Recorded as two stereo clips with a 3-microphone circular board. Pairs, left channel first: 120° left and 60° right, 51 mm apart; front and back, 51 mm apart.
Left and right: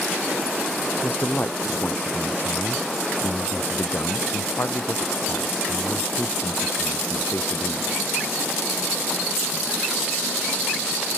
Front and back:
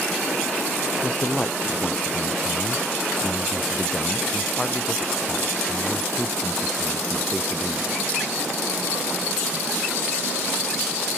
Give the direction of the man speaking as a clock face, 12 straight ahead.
10 o'clock.